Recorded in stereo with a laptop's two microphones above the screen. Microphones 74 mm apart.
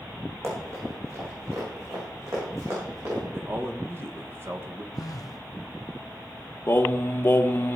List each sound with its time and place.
0.4 s running footsteps: 35° right (ahead or behind), 4 m; by 3.2 s 45° right (ahead or behind), 5.5 m
3.3 s a man speaking: 30° right (ahead or behind), 1.0 m
4.9 s a phone buzzing: 50° left (ahead or behind), 1.0 m
6.7 s singing: 30° left (ahead or behind), 0.9 m